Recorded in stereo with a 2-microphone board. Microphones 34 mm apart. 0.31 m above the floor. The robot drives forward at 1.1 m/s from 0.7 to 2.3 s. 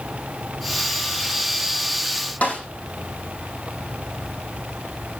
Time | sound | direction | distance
2.4 | a snare drum | 45° left (ahead or behind) | 7 m